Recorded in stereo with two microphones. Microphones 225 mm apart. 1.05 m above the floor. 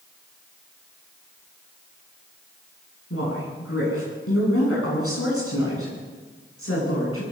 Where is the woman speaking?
85° left, 9 m; by 7.2 s 75° left (ahead or behind), 9.5 m.